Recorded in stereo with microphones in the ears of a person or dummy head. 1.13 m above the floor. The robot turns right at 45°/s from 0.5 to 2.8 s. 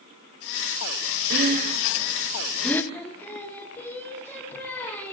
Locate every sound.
1.3 s breathing: 60° right (ahead or behind), 0.7 m; by 2.8 s 10° left (ahead or behind), 0.7 m
2.9 s singing: 5° left (ahead or behind), 1.2 m